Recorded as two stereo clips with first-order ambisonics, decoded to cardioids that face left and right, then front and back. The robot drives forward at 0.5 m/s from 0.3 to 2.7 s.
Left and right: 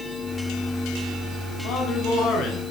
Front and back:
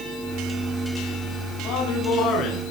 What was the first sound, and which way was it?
A man speaking, 45° left.